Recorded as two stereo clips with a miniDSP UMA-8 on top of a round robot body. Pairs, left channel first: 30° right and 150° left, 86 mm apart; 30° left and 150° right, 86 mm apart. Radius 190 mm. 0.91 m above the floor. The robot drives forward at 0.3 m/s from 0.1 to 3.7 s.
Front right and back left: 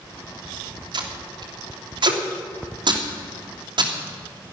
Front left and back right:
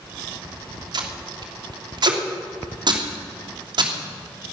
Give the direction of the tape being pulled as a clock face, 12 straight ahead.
6 o'clock.